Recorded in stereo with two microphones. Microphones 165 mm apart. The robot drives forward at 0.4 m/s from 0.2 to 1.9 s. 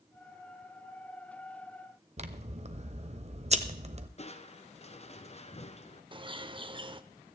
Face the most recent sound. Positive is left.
turn(degrees=-30)  # may be behind; listen again after turning